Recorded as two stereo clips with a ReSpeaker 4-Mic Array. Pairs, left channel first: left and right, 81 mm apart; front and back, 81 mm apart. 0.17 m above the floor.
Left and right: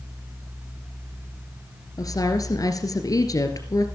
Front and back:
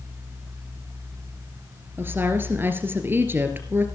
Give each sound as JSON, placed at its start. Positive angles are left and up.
{"t": 2.0, "sound": "a woman speaking", "azimuth_deg": 120, "distance_m": 2.5}